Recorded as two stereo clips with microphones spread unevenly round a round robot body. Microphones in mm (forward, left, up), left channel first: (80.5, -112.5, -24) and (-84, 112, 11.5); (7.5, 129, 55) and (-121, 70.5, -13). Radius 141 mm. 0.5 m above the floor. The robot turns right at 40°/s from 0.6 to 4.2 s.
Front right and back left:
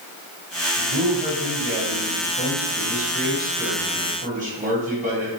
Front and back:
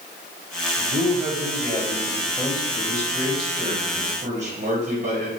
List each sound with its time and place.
0.8 s a man speaking: 55° left, 2 m; by 5.3 s 165° right, 2 m